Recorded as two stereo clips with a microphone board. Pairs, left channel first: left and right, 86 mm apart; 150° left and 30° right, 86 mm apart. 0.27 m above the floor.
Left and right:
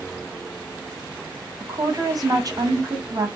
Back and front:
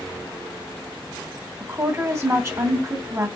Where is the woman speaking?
70° right, 1.7 m.